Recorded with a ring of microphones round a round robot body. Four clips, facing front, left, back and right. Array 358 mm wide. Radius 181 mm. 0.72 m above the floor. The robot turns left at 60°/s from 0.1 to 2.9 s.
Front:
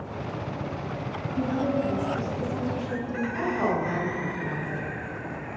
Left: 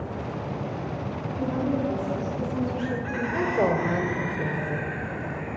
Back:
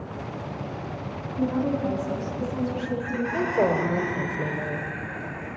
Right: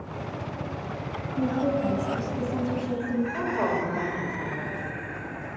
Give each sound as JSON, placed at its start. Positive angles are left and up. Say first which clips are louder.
{"t": 1.4, "sound": "a woman speaking", "louder": "right 1 dB, back 1 dB", "azimuth_deg": -35, "distance_m": 5.5}
{"t": 3.3, "sound": "a woman speaking", "louder": "left 3 dB, back 4 dB", "azimuth_deg": 145, "distance_m": 3.0}